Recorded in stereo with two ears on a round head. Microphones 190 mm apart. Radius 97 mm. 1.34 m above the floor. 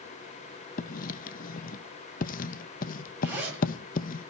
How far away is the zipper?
About 9.5 m.